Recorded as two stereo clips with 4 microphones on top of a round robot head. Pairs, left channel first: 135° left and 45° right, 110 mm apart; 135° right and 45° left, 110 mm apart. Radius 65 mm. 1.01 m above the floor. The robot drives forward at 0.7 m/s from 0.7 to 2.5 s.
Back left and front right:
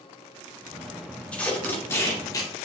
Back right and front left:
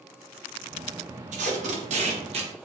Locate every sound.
1.3 s tape being pulled: 55° left, 2 m; by 2.7 s 80° left, 1.7 m